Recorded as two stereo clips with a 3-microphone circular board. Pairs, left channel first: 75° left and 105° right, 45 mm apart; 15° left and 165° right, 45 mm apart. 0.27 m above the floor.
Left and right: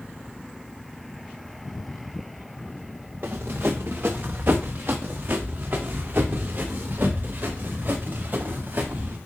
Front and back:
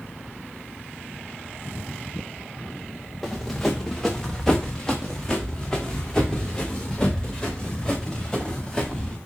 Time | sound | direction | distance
3.2 | running footsteps | 70° right | 1.8 m